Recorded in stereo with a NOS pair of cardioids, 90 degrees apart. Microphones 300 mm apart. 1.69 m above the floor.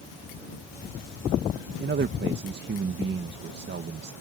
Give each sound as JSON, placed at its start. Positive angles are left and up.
{"t": 1.8, "sound": "a man speaking", "azimuth_deg": -35}